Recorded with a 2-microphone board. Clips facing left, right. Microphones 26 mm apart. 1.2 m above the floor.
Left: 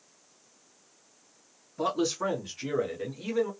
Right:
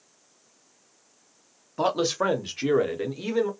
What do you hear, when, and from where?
1.8 s a man speaking: 65° right (ahead or behind), 0.9 m; by 3.5 s 55° right (ahead or behind), 1.1 m